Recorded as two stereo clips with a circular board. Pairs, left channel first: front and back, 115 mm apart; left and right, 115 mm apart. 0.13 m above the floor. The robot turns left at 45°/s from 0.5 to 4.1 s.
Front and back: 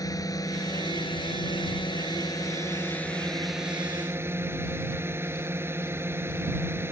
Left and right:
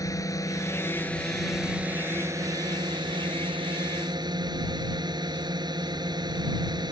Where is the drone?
45° left; by 6.9 s 120° right.